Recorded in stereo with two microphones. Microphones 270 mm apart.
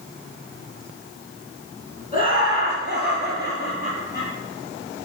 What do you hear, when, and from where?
2.1 s laughter: 30° left (ahead or behind), 1.9 m; by 4.3 s 40° left (ahead or behind), 4 m